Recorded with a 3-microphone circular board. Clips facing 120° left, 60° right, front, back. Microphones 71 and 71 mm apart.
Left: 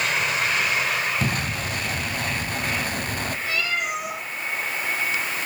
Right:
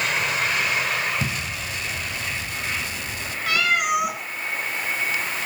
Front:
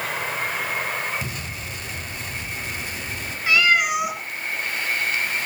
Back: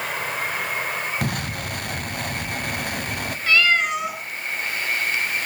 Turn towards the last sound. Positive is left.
turn(degrees=-75)